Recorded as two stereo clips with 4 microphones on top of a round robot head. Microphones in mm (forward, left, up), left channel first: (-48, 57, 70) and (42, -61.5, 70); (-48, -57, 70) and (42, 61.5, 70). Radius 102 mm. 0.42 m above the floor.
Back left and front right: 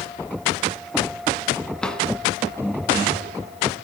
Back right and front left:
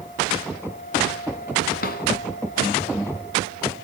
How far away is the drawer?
About 1.9 m.